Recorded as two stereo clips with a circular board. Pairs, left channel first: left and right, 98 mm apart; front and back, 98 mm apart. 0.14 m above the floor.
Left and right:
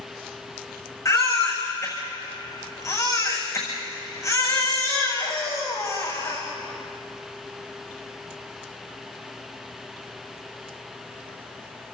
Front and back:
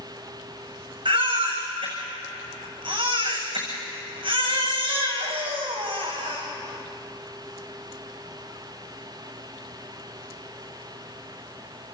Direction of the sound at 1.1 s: 145° left.